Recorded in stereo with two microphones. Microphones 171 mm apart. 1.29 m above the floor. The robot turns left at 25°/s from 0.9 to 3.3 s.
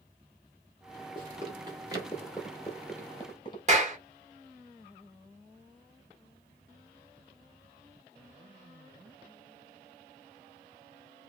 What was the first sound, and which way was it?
Running footsteps, 30° right (ahead or behind).